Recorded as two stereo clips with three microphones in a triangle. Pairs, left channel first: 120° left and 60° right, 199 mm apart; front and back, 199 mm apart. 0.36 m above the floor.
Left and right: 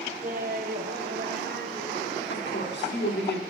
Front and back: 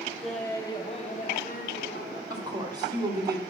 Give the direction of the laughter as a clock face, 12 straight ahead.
3 o'clock.